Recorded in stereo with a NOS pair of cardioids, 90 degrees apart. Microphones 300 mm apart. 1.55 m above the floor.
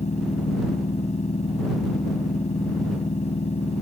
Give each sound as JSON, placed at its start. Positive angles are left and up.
{"t": 0.0, "sound": "a machine running", "azimuth_deg": 20}